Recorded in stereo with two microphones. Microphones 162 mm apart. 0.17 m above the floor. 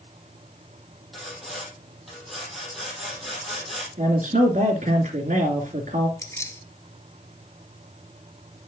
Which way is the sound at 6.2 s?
20° left (ahead or behind).